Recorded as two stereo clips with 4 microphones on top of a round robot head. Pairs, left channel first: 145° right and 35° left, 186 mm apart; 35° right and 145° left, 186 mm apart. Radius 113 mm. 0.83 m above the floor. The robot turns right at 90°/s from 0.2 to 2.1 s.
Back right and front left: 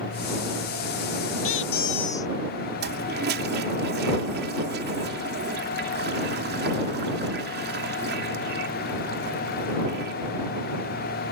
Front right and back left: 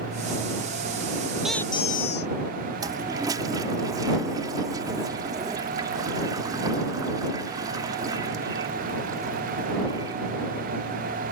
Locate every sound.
1.4 s a squeak: 130° right; by 2.3 s 70° right
2.8 s a toilet flushing: 70° left